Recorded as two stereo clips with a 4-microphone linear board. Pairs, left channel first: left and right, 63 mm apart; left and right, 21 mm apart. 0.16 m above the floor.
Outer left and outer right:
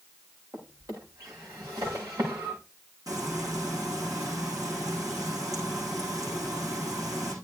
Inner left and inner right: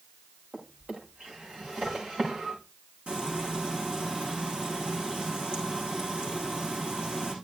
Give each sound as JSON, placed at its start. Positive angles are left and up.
{"t": 0.5, "sound": "a drawer", "side_deg": -70, "distance_m": 8.0}
{"t": 3.1, "sound": "frying", "side_deg": -65, "distance_m": 8.0}